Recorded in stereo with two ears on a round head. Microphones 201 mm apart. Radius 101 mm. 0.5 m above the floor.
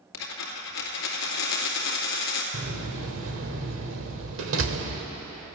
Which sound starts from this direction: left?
A dropped coin, at 0.1 s.